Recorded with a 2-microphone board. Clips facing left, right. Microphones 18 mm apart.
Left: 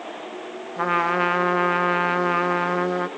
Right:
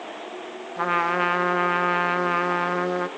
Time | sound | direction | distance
0.8 | a trumpet | centre (ahead or behind) | 0.7 m